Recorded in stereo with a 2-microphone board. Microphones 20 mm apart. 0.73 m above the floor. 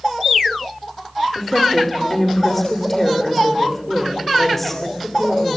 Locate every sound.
1.4 s a woman speaking: 10° left (ahead or behind), 2.5 m